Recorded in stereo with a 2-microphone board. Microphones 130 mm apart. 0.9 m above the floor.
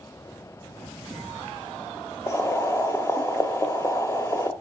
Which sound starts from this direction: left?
Boiling, at 2.3 s.